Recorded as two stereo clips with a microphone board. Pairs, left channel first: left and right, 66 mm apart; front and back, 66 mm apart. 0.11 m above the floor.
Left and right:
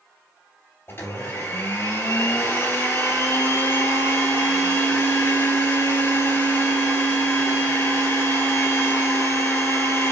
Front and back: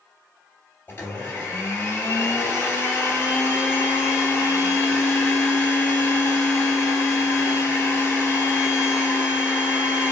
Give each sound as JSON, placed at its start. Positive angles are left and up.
{"t": 0.9, "sound": "a blender", "azimuth_deg": 55, "distance_m": 2.5}